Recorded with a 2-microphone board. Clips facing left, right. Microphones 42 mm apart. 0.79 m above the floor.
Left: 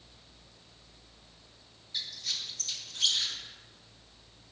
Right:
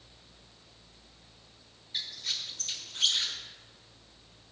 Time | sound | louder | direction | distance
1.9 | a squeak | right 1 dB | 35° right (ahead or behind) | 1.2 m